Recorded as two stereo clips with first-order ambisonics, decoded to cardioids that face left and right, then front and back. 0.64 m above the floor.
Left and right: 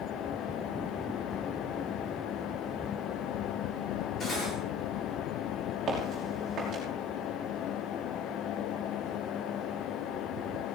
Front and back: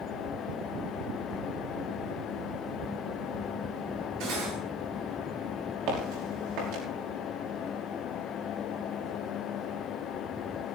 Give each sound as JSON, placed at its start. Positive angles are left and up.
{"t": 4.2, "sound": "cutlery clinking", "azimuth_deg": 160, "distance_m": 7.0}
{"t": 5.9, "sound": "footsteps", "azimuth_deg": -155, "distance_m": 6.5}